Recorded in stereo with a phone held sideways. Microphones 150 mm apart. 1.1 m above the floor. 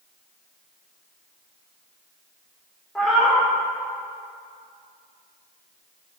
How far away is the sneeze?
No sneeze in this recording.